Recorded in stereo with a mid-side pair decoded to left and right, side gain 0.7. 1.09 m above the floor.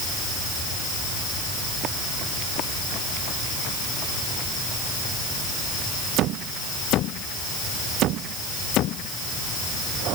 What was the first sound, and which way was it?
Only background noise.